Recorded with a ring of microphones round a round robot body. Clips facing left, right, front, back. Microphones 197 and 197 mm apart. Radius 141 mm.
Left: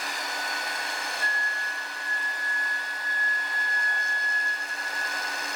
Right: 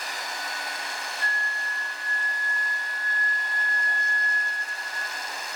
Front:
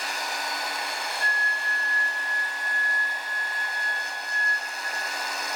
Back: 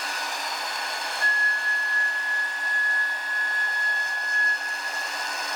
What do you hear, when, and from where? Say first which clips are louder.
1.2 s a flute: even, back 1 dB; 140° right, 0.5 m